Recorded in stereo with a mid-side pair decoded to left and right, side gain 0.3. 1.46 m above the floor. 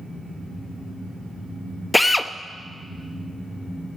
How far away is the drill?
About 0.6 m.